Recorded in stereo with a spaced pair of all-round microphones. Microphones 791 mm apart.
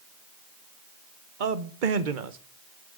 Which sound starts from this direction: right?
A man speaking, at 1.4 s.